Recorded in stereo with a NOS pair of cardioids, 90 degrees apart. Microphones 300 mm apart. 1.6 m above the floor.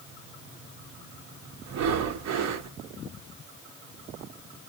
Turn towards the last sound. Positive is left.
turn(degrees=-65)